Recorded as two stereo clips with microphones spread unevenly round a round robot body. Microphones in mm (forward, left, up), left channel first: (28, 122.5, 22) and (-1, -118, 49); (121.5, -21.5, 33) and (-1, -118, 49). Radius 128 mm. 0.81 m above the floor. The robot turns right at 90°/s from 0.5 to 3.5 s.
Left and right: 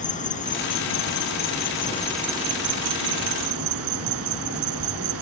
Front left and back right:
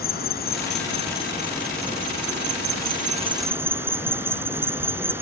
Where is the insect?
25° left; by 5.2 s 65° right.